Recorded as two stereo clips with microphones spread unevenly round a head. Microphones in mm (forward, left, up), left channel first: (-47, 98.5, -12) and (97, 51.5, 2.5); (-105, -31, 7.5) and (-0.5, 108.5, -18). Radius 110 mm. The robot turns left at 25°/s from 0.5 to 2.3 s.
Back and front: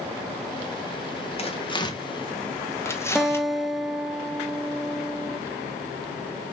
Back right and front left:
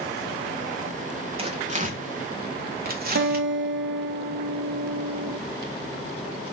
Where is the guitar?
70° left, 0.7 m.